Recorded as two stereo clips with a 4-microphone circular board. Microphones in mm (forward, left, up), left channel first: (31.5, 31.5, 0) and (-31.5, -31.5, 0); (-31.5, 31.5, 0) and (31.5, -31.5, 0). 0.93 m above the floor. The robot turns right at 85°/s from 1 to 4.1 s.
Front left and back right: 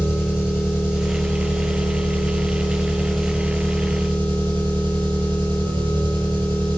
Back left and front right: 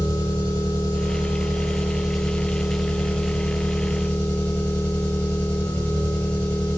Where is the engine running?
55° right, 7 m; by 6.8 s 150° right, 7 m.